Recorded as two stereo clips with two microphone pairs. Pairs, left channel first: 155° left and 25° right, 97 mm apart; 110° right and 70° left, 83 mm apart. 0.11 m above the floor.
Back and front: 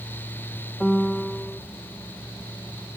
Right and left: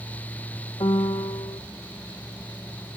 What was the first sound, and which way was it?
A piano, 115° right.